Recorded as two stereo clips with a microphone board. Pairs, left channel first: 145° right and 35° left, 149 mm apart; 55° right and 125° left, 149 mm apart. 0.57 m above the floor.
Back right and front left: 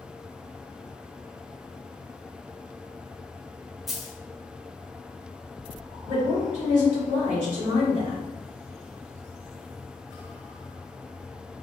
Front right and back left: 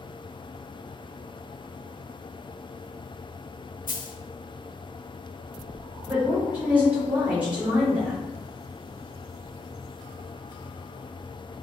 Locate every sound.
3.9 s a dropped coin: 55° right, 0.7 m
6.1 s a woman speaking: 45° left, 1.9 m